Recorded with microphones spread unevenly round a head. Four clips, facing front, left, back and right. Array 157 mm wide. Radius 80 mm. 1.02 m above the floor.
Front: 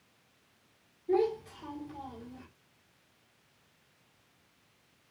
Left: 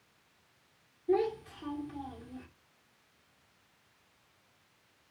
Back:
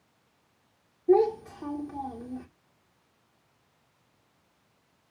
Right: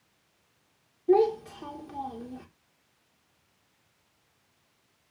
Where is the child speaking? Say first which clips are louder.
Right 8 dB, back 7 dB; 150° right, 2.5 m.